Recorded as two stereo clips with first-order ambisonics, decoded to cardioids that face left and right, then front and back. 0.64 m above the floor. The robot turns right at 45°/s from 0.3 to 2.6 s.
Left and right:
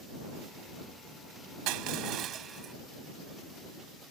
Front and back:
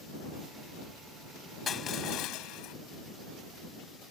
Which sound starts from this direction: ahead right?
Crushing, at 1.7 s.